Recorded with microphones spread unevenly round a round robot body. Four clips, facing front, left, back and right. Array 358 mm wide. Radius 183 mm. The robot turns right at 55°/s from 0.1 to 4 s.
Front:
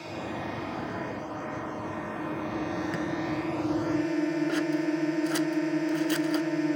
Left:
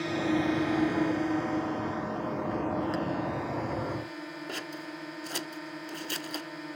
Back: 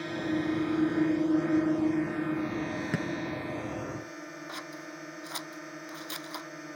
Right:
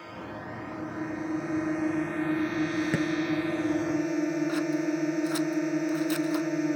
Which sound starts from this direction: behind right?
A clink, at 2.9 s.